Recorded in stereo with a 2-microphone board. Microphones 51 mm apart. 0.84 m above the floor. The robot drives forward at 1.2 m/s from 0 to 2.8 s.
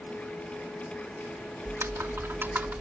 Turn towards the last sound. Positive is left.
turn(degrees=-40)  # may be behind; listen again after turning